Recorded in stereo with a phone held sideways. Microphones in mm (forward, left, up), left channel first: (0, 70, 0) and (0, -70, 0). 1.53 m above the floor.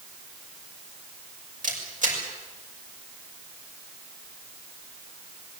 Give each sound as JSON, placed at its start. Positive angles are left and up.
{"t": 1.6, "sound": "a camera shutter", "side_deg": -70, "distance_m": 6.0}